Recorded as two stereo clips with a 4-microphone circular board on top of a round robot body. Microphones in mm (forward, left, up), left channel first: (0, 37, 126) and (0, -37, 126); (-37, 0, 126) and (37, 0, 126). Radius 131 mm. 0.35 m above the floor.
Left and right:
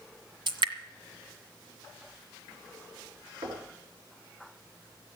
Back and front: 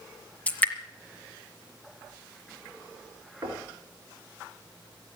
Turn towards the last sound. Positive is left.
turn(degrees=-50)